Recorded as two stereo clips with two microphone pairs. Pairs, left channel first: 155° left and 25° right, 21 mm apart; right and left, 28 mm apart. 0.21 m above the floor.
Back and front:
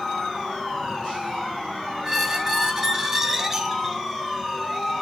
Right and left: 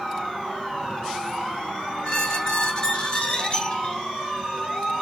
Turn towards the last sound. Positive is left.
turn(degrees=-65)